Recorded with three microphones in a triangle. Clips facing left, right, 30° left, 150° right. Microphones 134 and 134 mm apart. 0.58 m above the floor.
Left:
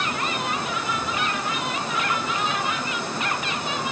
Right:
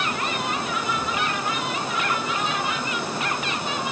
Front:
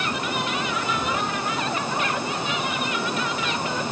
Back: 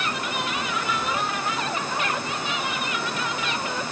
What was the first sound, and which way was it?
Only background noise.